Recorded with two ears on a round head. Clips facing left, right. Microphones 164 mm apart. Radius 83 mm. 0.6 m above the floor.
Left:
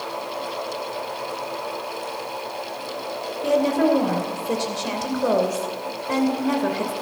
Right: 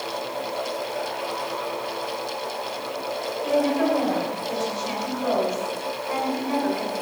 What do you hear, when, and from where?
3.4 s a woman speaking: 60° left (ahead or behind), 2.5 m